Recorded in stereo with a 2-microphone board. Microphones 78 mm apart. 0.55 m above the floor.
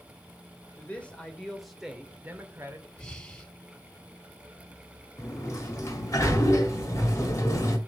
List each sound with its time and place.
0.8 s a man speaking: 20° left (ahead or behind), 2 m; by 2.9 s 40° right (ahead or behind), 1.8 m
3.0 s breathing: 15° left (ahead or behind), 1.7 m
5.2 s a sliding door: 40° left (ahead or behind), 1.8 m